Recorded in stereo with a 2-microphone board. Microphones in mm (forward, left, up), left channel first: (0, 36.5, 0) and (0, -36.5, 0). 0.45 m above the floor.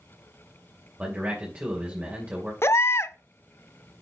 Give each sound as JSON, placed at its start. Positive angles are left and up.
{"t": 1.0, "sound": "a man speaking", "side_deg": -20, "distance_m": 2.5}
{"t": 2.6, "sound": "a baby crying", "side_deg": 40, "distance_m": 0.5}